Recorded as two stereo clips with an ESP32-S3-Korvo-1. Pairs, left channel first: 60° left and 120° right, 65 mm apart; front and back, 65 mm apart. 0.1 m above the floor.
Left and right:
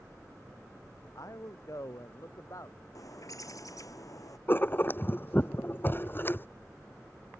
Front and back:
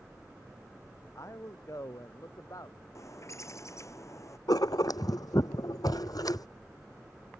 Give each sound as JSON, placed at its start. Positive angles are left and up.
{"t": 1.1, "sound": "a man speaking", "azimuth_deg": 35}
{"t": 3.0, "sound": "a bird", "azimuth_deg": 35}
{"t": 4.5, "sound": "writing", "azimuth_deg": 5}